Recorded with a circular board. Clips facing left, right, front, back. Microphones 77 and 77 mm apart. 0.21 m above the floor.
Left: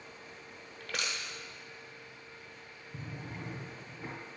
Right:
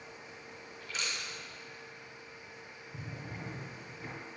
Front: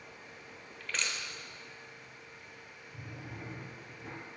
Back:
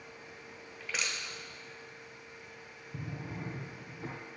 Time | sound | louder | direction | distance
0.8 | crushing | left 2 dB, even | 95° left | 1.2 m
2.9 | a drawer | left 1 dB, back 5 dB | 165° left | 2.5 m